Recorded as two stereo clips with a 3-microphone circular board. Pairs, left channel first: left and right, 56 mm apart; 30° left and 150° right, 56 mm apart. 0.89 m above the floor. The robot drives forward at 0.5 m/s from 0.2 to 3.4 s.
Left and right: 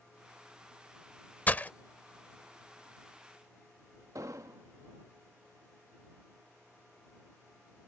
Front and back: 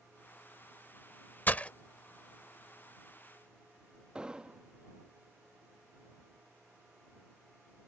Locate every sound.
1.5 s breaking glass: 55° left; by 1.7 s 70° left
4.2 s an explosion: 75° right